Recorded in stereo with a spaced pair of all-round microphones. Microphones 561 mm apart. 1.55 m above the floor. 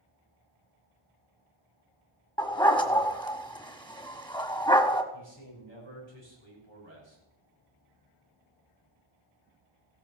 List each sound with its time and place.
2.4 s a dog barking: 10° left (ahead or behind), 1.5 m
5.1 s a man speaking: 50° left (ahead or behind), 6 m